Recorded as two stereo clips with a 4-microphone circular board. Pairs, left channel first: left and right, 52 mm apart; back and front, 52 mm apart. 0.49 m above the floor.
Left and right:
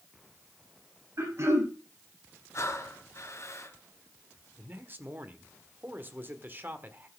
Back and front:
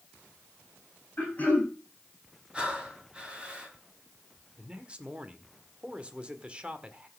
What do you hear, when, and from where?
1.2 s throat clearing: 120° right, 6 m
2.5 s breathing: 70° left, 3 m
4.6 s a man speaking: 60° right, 1.6 m